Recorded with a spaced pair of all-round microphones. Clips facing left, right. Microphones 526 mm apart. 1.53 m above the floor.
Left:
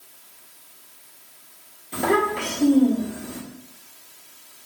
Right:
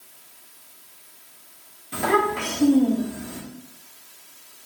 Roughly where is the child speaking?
Right.